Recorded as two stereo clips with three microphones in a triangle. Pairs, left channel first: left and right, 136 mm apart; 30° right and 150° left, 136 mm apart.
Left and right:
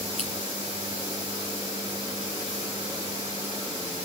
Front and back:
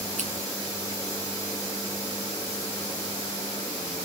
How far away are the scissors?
About 4.5 m.